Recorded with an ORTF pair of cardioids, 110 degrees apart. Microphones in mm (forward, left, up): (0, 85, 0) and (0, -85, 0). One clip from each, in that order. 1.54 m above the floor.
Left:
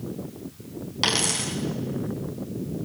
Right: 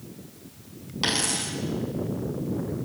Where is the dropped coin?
25° left, 5 m.